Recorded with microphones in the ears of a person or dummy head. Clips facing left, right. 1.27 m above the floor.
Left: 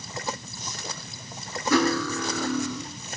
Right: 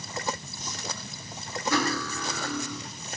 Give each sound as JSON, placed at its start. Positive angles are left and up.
{"t": 1.7, "sound": "cutlery clinking", "side_deg": 65, "distance_m": 2.0}